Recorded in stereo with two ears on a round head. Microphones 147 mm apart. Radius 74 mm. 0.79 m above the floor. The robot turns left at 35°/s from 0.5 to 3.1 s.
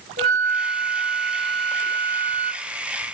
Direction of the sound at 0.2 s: 55° right.